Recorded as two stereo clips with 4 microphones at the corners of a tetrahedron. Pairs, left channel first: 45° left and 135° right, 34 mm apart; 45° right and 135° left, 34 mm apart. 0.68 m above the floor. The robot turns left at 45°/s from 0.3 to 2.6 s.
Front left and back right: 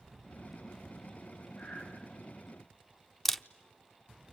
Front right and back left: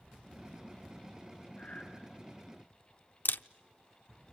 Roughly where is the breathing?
Ahead.